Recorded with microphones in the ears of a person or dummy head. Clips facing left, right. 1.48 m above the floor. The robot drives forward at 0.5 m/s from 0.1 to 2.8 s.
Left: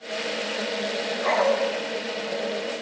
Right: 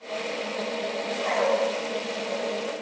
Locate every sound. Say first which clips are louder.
1.2 s a dog barking: left 3 dB; 70° left (ahead or behind), 3.5 m